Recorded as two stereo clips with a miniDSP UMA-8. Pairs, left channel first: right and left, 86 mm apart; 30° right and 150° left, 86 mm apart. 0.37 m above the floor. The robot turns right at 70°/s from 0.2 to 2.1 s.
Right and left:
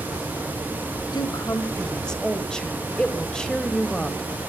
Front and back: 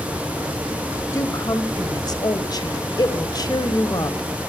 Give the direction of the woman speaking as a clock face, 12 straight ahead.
3 o'clock.